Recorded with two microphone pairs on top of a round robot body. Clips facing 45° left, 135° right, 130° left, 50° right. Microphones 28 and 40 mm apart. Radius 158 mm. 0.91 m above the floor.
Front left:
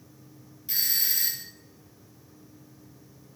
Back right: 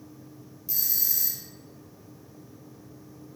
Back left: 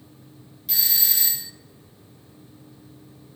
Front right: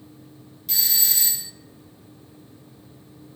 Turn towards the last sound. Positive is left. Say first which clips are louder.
# front left 5 dB, front right 1 dB
turn(degrees=50)